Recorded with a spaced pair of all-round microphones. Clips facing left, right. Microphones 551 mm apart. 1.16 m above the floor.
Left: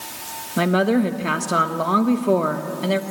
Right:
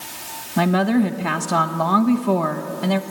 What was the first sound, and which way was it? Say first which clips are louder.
A woman speaking: even; 20° right (ahead or behind).